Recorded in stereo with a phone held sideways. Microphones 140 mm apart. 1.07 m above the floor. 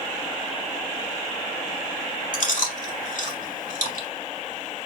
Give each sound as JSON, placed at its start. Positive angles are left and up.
{"t": 2.3, "sound": "chewing", "side_deg": 70, "distance_m": 1.9}